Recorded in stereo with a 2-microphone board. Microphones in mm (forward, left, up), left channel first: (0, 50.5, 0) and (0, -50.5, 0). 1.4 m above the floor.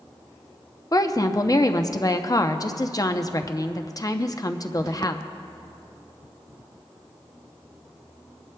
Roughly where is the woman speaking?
Left.